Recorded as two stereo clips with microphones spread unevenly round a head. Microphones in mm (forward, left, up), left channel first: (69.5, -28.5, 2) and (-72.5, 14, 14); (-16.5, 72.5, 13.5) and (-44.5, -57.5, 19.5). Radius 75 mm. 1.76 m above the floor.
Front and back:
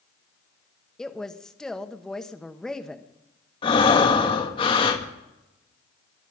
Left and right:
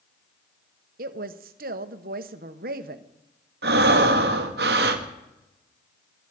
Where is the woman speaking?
105° right, 1.2 m.